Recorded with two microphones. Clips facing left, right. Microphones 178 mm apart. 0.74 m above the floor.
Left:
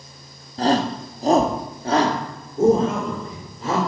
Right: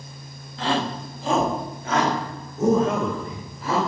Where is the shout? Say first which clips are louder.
Left 5 dB; 40° left (ahead or behind), 1.0 m; by 3.8 s 25° left (ahead or behind), 3 m.